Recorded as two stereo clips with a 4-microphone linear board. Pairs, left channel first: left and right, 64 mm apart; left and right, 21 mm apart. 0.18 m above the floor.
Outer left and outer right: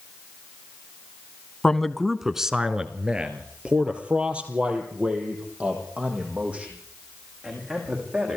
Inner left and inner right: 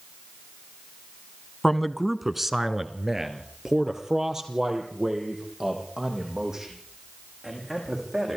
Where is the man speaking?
10° left (ahead or behind), 1.0 m; by 8.4 s 20° right (ahead or behind), 9 m.